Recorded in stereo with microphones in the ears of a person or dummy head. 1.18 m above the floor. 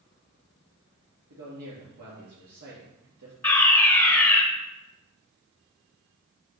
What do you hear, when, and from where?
1.3 s a man speaking: 55° right (ahead or behind), 2 m
3.4 s a fire alarm: 5° left (ahead or behind), 1.5 m